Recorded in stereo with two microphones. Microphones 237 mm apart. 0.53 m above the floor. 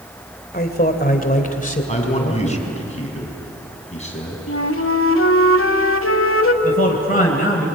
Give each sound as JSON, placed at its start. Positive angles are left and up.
{"t": 0.5, "sound": "a man speaking", "side_deg": 40, "distance_m": 2.0}
{"t": 1.9, "sound": "a man speaking", "side_deg": 30, "distance_m": 5.0}
{"t": 4.5, "sound": "a flute", "side_deg": 65, "distance_m": 1.1}
{"t": 6.6, "sound": "a man speaking", "side_deg": 40, "distance_m": 3.5}